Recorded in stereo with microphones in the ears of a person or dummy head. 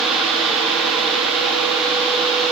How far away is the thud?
No thud in this recording.